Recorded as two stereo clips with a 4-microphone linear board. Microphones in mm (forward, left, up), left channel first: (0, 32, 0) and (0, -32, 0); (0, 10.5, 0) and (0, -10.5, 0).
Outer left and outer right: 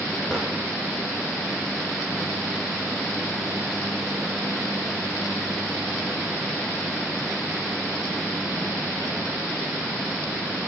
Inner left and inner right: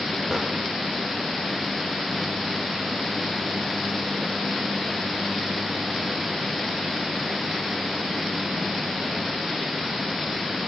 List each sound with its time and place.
0.3 s a drawer: centre (ahead or behind), 8 m